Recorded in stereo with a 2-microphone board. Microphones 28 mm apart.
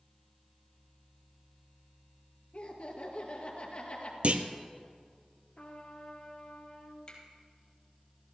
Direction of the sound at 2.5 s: 50° left (ahead or behind).